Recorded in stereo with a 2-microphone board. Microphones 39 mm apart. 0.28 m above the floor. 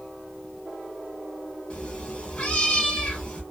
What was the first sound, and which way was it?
A cat meowing, 30° left (ahead or behind).